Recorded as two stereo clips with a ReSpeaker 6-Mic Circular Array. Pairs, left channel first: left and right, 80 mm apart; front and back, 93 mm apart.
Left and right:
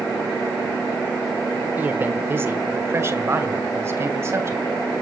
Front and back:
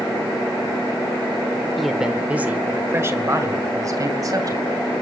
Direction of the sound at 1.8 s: 90° right.